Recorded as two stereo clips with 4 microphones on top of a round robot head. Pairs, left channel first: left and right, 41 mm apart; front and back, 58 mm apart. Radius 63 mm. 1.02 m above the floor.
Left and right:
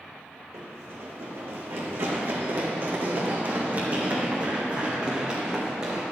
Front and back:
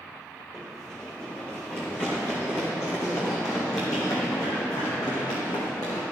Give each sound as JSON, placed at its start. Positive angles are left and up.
{"t": 0.5, "sound": "running footsteps", "azimuth_deg": -80, "distance_m": 2.5}